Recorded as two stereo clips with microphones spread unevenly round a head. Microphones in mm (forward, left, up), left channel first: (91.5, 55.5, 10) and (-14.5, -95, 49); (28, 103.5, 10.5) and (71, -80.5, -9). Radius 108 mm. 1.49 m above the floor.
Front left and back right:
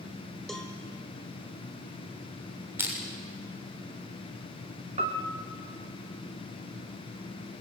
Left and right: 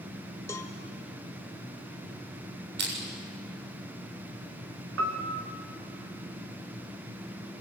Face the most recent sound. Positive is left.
turn(degrees=-75)